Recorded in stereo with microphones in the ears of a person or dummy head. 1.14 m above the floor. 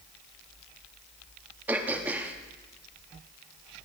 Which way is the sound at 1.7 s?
10° right (ahead or behind).